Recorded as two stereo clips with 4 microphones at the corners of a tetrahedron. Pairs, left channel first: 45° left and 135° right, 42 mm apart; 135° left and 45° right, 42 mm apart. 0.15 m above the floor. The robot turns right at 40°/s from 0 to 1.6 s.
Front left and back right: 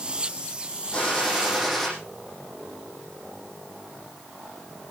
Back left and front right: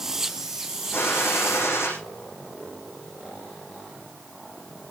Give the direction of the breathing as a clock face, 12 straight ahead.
I don't hear breathing.